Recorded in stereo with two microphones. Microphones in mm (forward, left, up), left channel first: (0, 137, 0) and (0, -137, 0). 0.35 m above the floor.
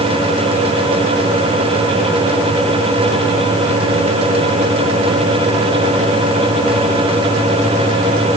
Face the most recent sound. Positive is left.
No sound to turn to.